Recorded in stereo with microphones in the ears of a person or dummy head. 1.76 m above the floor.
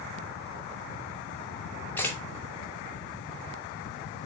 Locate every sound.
2.0 s a camera shutter: 15° left (ahead or behind), 2 m